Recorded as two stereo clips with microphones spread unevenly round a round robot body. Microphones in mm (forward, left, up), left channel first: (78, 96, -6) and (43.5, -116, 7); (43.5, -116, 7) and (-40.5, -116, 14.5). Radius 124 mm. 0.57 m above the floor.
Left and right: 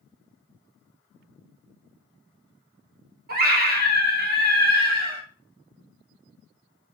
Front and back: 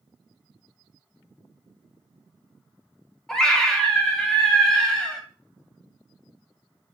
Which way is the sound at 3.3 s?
75° right.